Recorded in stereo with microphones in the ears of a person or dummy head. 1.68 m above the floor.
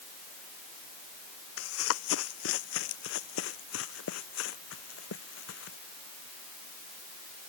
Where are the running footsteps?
75° left (ahead or behind); by 5.8 s 70° left (ahead or behind).